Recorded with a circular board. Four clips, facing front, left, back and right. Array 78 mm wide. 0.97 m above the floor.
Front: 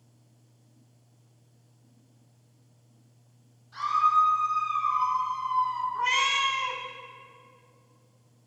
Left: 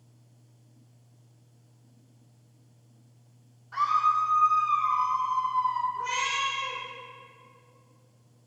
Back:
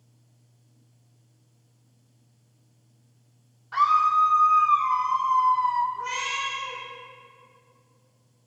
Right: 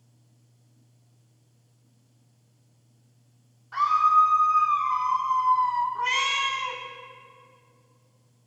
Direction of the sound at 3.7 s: 165° right.